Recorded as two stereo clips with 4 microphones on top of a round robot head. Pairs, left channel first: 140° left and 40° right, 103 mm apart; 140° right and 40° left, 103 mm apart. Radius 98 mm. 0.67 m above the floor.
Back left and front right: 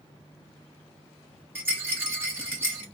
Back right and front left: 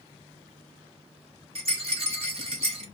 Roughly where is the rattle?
Ahead left.